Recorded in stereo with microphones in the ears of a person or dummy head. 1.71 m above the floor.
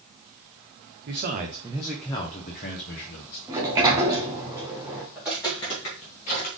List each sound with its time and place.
1.1 s a man speaking: 35° right (ahead or behind), 0.8 m; by 3.4 s 50° left (ahead or behind), 1.1 m
3.5 s a sliding door: 15° right (ahead or behind), 0.9 m
5.2 s footsteps: 10° right (ahead or behind), 1.7 m; by 6.5 s 45° left (ahead or behind), 2.5 m